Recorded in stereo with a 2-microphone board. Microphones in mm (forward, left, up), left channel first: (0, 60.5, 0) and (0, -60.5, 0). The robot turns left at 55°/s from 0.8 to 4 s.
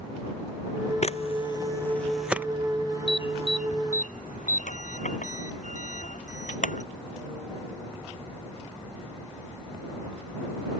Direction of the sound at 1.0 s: 65° left (ahead or behind).